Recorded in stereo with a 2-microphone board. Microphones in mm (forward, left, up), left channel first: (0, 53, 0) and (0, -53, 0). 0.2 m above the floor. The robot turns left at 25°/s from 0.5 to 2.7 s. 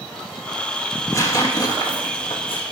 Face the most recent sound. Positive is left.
turn(degrees=115)